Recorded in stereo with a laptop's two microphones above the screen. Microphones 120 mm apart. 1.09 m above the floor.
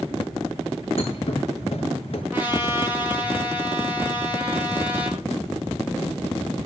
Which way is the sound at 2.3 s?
15° right (ahead or behind).